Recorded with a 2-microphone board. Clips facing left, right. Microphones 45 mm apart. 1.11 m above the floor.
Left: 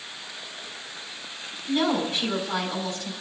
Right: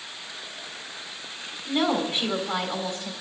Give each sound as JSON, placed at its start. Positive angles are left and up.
{"t": 1.7, "sound": "a woman speaking", "side_deg": -30, "distance_m": 4.5}